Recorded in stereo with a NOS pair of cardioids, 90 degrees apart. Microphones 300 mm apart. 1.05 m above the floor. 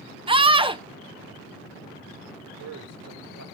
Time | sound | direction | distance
0.3 | a scream | 20° right | 1.1 m
2.5 | a man speaking | 65° right | 3.5 m